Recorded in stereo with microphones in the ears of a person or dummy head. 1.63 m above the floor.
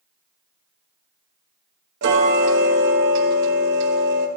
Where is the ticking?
70° right (ahead or behind), 1.2 m.